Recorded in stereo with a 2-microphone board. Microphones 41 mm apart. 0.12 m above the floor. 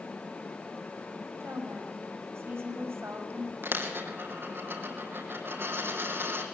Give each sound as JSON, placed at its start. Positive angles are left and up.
{"t": 1.4, "sound": "a woman speaking", "side_deg": -80, "distance_m": 6.5}
{"t": 3.6, "sound": "a dropped coin", "side_deg": -65, "distance_m": 3.0}